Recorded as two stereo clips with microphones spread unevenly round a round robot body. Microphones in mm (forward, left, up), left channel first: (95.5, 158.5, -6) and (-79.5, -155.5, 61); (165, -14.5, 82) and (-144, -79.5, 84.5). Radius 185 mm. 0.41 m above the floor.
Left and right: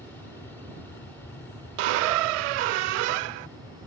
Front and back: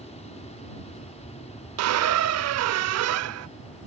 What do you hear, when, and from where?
0.0 s an aircraft: 25° left
1.8 s a squeak: 125° right